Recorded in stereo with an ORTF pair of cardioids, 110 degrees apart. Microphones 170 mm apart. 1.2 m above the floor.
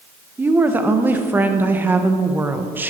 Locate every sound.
0.4 s a woman speaking: 10° right, 0.9 m